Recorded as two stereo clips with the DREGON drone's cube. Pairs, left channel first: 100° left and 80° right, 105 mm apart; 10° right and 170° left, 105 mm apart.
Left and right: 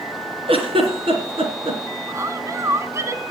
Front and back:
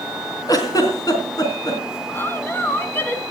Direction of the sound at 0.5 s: 60° right.